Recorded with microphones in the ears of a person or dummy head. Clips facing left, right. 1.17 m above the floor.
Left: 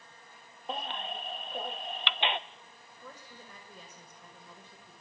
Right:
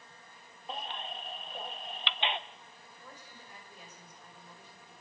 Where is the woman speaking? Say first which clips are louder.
Left 4 dB; 65° left (ahead or behind), 6 m.